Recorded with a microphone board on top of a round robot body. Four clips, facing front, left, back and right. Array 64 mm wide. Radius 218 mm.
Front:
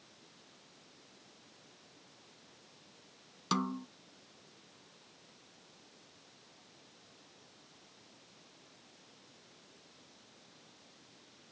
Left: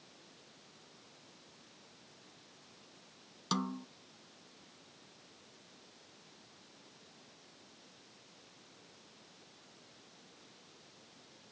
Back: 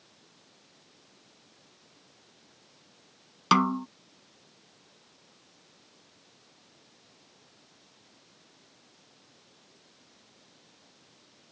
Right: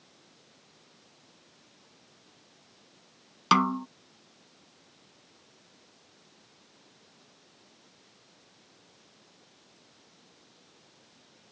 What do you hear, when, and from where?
3.5 s a snare drum: 130° right